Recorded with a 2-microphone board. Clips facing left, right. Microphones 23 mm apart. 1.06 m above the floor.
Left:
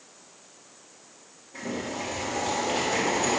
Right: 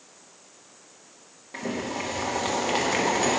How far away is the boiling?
About 1.0 m.